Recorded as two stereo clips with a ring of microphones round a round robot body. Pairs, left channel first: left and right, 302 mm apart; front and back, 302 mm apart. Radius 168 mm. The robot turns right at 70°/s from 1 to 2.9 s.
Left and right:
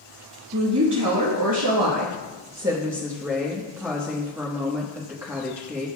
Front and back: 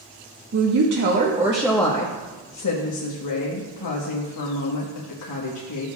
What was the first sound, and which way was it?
A woman speaking, 140° right.